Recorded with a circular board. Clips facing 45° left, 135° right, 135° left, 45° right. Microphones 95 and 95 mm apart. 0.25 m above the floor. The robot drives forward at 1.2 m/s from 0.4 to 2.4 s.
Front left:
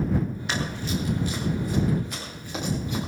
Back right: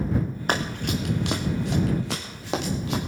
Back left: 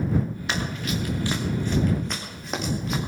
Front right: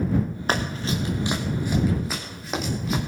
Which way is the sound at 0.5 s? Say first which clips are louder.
Back right 5 dB, front right 4 dB; 95° right.